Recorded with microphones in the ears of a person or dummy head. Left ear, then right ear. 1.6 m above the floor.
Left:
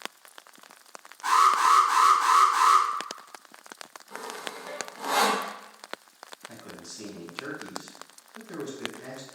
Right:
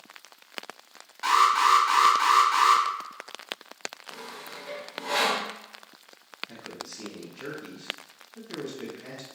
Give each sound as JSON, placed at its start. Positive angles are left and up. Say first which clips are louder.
{"t": 1.2, "sound": "an alarm", "louder": "even", "side_deg": -70, "distance_m": 1.1}
{"t": 4.1, "sound": "sawing", "louder": "left 3 dB", "side_deg": 15, "distance_m": 0.5}
{"t": 6.5, "sound": "a man speaking", "louder": "right 3 dB", "side_deg": 40, "distance_m": 1.7}